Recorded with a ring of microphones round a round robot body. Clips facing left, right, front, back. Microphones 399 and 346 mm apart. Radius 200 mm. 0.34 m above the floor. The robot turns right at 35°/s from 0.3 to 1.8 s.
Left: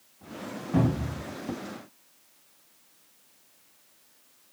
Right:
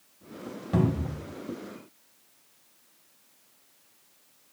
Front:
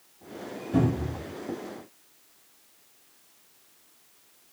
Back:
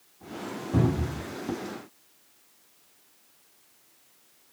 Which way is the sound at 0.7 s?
105° right.